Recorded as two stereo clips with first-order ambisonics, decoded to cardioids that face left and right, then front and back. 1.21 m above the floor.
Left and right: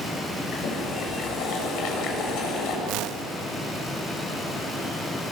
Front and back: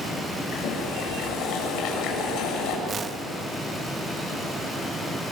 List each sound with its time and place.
0.5 s boiling: 45° left, 6 m
2.9 s a whoosh: 115° right, 0.8 m